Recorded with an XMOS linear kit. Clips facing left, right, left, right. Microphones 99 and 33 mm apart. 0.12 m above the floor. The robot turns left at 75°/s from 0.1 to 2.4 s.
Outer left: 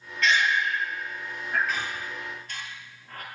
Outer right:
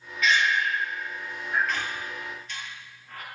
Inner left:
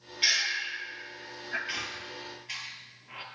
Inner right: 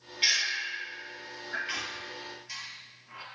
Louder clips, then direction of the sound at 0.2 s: Even, even; 5° right (ahead or behind).